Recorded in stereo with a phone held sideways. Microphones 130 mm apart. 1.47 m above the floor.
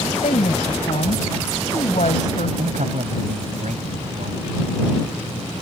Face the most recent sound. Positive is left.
turn(degrees=-90)